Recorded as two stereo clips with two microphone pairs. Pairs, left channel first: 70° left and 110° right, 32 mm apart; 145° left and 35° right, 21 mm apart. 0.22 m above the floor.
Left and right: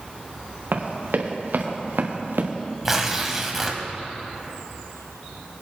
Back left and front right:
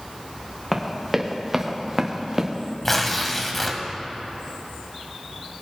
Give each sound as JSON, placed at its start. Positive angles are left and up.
{"t": 0.7, "sound": "running footsteps", "azimuth_deg": -130, "distance_m": 2.5}
{"t": 2.9, "sound": "tearing paper", "azimuth_deg": -165, "distance_m": 1.4}